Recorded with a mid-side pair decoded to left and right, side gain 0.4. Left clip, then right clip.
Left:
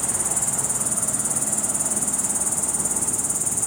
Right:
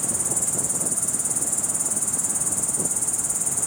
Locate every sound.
0.0 s an insect: 5° left, 0.9 m